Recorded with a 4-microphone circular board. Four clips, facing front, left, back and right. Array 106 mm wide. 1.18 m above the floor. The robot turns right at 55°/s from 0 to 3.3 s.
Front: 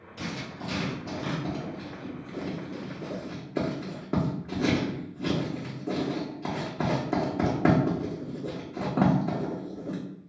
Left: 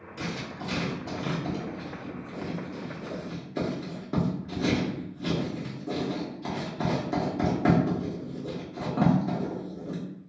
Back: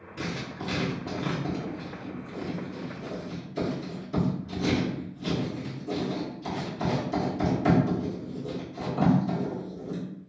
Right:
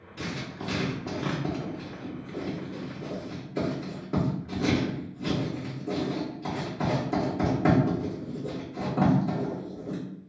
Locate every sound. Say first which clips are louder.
0.2 s writing: even, back 2 dB; 165° right, 1.1 m; by 10.0 s 5° left, 1.1 m